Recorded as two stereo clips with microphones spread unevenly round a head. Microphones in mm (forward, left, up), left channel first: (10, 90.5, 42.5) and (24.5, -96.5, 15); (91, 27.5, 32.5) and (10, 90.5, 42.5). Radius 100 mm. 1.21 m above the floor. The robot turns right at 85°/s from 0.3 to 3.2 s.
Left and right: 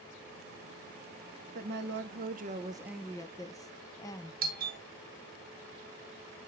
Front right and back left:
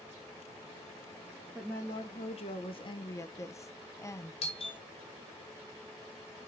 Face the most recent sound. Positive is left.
turn(degrees=-55)